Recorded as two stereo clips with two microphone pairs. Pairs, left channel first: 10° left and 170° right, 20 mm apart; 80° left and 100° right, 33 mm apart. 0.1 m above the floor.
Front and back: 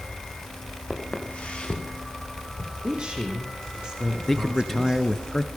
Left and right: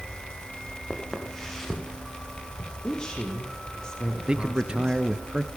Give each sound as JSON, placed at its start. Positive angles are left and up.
{"t": 0.9, "sound": "footsteps", "azimuth_deg": 5, "distance_m": 8.0}
{"t": 2.8, "sound": "a woman speaking", "azimuth_deg": 150, "distance_m": 6.0}
{"t": 4.3, "sound": "a man speaking", "azimuth_deg": -65, "distance_m": 1.8}